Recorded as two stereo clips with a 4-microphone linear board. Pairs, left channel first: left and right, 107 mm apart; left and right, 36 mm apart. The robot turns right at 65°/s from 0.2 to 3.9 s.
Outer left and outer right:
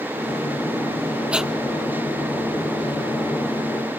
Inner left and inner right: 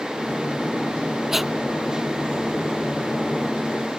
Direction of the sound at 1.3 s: 10° right (ahead or behind).